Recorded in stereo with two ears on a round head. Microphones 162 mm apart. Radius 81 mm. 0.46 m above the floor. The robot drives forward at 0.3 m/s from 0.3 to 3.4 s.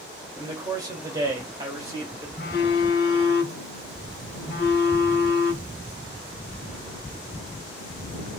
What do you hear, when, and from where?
0.4 s a man speaking: 25° right (ahead or behind), 2.0 m; by 2.3 s 20° right (ahead or behind), 2.5 m
2.4 s a phone buzzing: 55° left (ahead or behind), 1.1 m; by 5.8 s 60° left (ahead or behind), 1.0 m